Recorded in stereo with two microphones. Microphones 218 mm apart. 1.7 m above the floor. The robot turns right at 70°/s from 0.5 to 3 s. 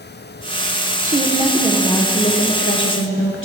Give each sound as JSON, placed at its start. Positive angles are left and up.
{"t": 1.0, "sound": "a woman speaking", "azimuth_deg": -45, "distance_m": 1.1}